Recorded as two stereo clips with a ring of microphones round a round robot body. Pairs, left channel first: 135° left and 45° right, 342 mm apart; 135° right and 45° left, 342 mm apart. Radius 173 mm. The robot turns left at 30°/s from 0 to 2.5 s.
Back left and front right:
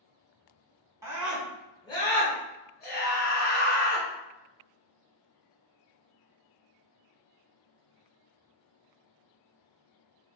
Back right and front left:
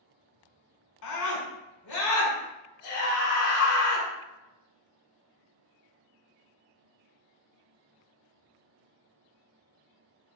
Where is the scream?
125° right, 1.6 m; by 4.1 s 170° right, 1.6 m.